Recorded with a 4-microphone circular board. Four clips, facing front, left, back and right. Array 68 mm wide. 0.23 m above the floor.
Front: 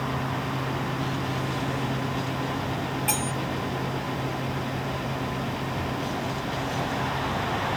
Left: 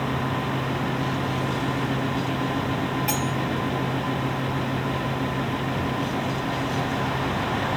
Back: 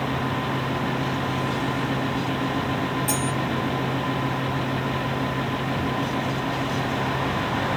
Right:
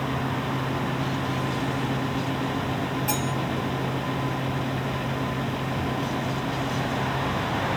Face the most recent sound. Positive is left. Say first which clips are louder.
# left 1 dB, back 3 dB
turn(degrees=60)